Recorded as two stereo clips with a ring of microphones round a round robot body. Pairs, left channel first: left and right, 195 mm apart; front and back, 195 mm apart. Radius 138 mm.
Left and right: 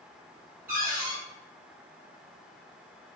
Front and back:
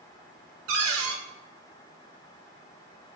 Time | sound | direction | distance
0.7 | a cupboard door | 170° right | 0.6 m